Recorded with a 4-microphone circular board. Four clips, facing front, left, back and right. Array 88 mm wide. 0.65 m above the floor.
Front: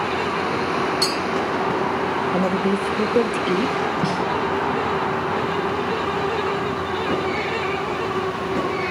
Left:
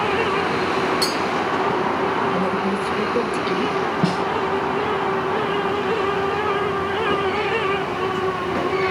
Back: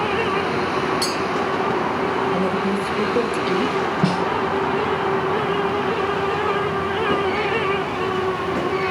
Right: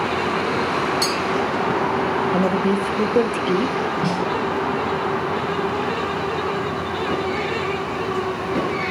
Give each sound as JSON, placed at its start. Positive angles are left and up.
{"t": 1.0, "sound": "a clink", "azimuth_deg": -50, "distance_m": 6.0}
{"t": 2.3, "sound": "a woman speaking", "azimuth_deg": -50, "distance_m": 0.7}
{"t": 4.0, "sound": "a snare drum", "azimuth_deg": 135, "distance_m": 3.5}